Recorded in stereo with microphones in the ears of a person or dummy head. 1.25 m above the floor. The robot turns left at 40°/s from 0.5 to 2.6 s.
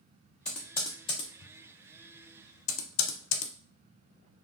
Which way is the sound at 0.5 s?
5° left (ahead or behind).